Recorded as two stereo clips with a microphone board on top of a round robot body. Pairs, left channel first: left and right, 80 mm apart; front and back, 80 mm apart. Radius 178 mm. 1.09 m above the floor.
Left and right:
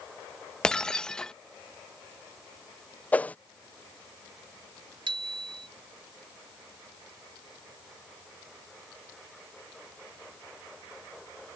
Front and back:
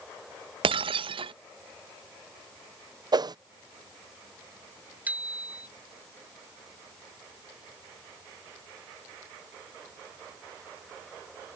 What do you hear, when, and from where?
0.6 s breaking glass: 170° left
3.1 s a whoosh: 160° left
5.1 s a bicycle bell: 110° right